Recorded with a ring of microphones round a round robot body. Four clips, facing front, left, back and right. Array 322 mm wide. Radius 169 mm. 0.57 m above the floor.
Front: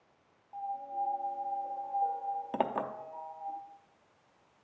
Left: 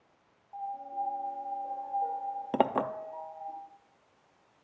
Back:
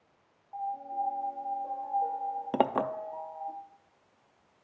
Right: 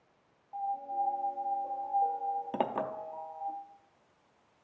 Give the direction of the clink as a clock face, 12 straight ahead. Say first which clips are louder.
Left 9 dB, back 6 dB; 7 o'clock.